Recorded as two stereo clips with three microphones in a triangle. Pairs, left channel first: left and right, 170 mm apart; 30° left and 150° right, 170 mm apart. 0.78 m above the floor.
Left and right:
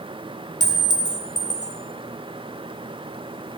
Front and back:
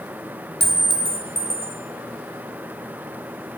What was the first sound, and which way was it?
A clink, 50° left.